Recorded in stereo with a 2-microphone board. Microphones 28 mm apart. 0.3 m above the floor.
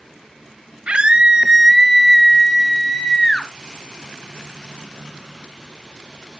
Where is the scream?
40° right (ahead or behind), 1.3 m; by 3.5 s 25° left (ahead or behind), 2.0 m.